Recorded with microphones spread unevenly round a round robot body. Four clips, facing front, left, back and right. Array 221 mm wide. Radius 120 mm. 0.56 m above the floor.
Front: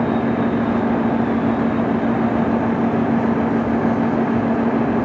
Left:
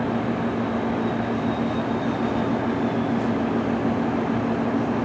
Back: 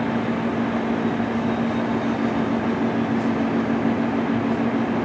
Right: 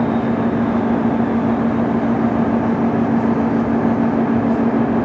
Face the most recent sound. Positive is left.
No sound to turn to.